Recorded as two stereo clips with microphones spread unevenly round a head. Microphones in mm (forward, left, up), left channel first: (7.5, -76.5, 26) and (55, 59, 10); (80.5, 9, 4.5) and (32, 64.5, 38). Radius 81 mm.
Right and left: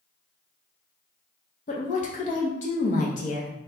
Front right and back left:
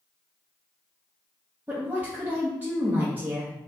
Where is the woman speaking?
145° right, 0.6 m.